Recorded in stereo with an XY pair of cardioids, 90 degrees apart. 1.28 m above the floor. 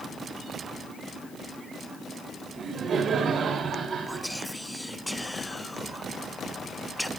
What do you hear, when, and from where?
2.5 s laughter: 55° right, 8.5 m
4.1 s whispering: 5° left, 1.2 m